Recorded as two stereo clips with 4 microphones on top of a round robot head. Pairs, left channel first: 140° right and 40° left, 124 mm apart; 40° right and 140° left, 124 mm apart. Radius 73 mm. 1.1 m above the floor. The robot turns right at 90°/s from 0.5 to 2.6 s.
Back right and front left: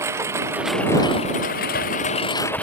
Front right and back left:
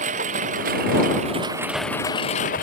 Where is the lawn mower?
110° left; by 2.6 s 60° right.